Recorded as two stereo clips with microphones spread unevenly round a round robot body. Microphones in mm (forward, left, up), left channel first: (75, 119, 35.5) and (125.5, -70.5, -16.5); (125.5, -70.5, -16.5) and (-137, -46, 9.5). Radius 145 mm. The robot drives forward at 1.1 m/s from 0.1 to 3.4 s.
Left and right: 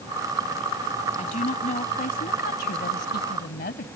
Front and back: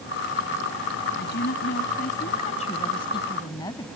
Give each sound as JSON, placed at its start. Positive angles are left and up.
{"t": 1.2, "sound": "a woman speaking", "azimuth_deg": 50}